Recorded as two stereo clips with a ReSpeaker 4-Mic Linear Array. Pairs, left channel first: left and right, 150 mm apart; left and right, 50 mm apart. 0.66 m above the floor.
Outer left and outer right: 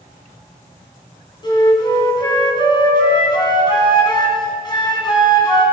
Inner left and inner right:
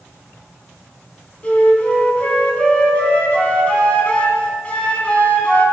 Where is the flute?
25° left (ahead or behind), 3 m.